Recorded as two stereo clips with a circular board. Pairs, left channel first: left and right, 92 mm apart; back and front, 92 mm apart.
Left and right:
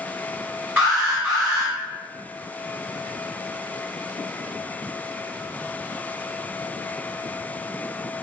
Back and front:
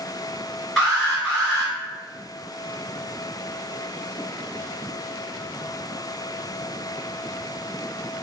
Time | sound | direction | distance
0.8 | an alarm | 105° right | 1.9 m